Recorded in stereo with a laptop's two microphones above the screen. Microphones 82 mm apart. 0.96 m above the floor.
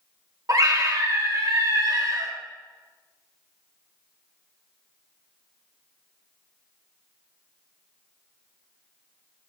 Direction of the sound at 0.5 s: 45° right (ahead or behind).